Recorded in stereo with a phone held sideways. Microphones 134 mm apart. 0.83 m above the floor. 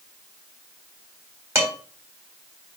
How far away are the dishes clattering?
About 3 m.